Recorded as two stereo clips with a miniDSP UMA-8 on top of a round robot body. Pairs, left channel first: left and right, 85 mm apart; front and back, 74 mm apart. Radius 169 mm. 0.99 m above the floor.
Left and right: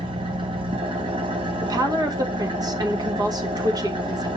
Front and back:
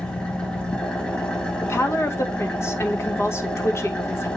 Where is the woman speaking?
50° right, 1.6 m.